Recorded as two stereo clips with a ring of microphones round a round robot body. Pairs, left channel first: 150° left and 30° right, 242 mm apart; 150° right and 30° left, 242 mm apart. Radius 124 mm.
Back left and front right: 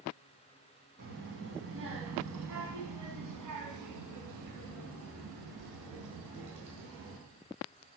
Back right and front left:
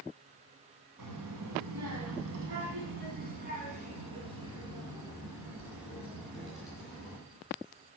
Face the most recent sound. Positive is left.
turn(degrees=-60)